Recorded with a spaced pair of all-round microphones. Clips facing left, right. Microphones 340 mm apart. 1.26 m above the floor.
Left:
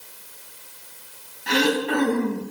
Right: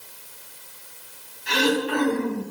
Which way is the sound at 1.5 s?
65° left (ahead or behind).